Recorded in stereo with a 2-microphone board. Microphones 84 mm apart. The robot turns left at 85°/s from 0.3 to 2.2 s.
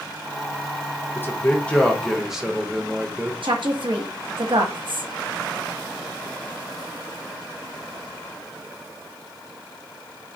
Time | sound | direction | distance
1.1 | a man speaking | 25° left (ahead or behind) | 0.8 m
3.4 | a woman speaking | 75° right (ahead or behind) | 1.2 m